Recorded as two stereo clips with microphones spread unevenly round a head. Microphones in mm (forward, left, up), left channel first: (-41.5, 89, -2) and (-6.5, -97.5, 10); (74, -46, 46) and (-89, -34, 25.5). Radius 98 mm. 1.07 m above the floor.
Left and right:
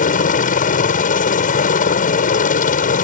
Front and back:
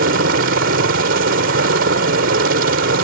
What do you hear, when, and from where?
0.0 s a helicopter: 145° left